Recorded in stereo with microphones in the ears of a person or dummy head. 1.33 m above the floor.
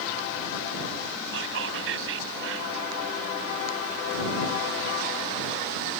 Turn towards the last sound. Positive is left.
turn(degrees=-70)  # may be behind; listen again after turning